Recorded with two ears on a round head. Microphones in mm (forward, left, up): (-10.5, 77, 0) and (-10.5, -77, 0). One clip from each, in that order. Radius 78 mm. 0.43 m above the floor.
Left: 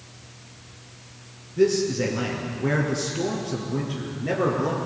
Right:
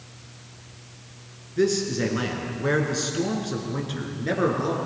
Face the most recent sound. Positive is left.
turn(degrees=-80)